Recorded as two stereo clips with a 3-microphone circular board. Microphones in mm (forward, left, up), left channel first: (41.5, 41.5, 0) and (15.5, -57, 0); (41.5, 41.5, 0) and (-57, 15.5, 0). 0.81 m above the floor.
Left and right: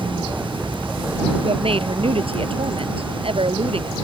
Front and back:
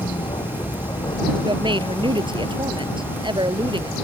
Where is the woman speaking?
130° right.